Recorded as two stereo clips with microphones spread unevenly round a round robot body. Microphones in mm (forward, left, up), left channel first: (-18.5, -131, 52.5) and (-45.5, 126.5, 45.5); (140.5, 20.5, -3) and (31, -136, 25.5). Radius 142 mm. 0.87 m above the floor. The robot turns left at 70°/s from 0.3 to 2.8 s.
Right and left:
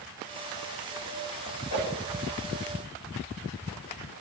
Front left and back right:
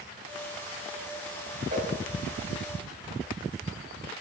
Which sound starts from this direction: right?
A whoosh, at 1.7 s.